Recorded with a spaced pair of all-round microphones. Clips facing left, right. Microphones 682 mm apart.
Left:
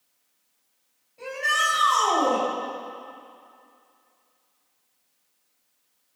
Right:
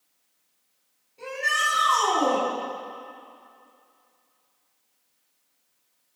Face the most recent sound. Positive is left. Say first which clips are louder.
# left 1 dB
turn(degrees=15)  # may be behind; listen again after turning